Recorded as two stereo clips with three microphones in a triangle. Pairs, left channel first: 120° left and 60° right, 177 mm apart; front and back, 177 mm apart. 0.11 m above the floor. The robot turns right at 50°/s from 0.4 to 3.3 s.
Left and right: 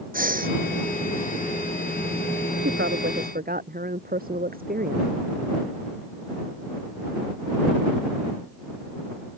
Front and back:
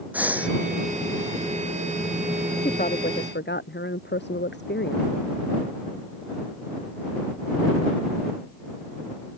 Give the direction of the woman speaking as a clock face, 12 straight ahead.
2 o'clock.